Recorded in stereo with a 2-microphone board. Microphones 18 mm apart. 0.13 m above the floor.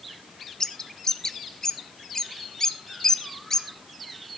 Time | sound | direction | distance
0.6 | a bird | 35° left (ahead or behind) | 1.5 m